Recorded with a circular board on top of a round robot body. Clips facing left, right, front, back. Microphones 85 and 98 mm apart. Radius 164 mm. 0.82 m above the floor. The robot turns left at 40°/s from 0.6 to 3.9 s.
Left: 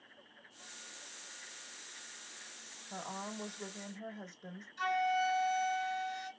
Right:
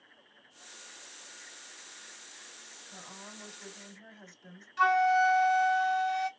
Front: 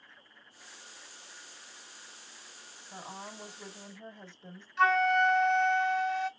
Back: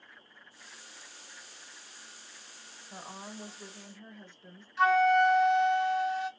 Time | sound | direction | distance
2.9 | a woman speaking | 95° left | 1.3 m
4.8 | a flute | 95° right | 1.3 m